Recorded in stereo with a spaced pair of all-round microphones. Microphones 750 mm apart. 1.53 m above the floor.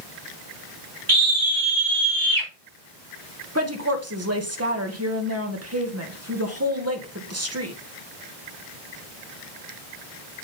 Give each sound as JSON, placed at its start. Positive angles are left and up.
{"t": 1.1, "sound": "a scream", "side_deg": -85, "distance_m": 4.5}
{"t": 3.5, "sound": "a woman speaking", "side_deg": -20, "distance_m": 1.6}